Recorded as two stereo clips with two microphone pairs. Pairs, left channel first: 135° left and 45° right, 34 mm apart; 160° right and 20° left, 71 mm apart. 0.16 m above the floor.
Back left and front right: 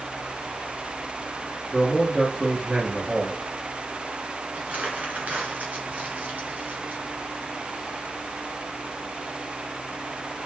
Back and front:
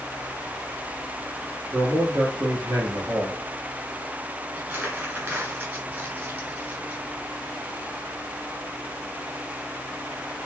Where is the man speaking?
15° left, 3 m.